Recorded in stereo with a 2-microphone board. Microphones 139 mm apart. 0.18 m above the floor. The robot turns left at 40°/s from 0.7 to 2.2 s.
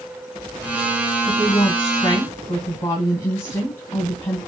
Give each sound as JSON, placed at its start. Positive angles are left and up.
{"t": 1.2, "sound": "a woman speaking", "side_deg": 20, "distance_m": 1.6}